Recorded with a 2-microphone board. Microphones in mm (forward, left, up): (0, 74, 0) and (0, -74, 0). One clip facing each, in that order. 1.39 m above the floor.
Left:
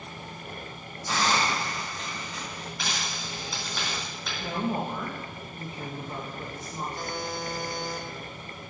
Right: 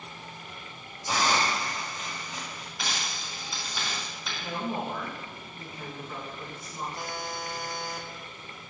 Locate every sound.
1.1 s a hiss: 15° right (ahead or behind), 2 m
2.8 s a dropped coin: centre (ahead or behind), 3.5 m
4.4 s a woman speaking: 25° left (ahead or behind), 1.3 m
7.0 s a buzzer: 5° right (ahead or behind), 0.8 m